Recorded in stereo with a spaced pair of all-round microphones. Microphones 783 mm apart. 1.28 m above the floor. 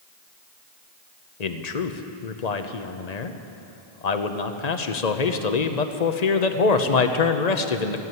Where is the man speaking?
60° left (ahead or behind), 0.9 m.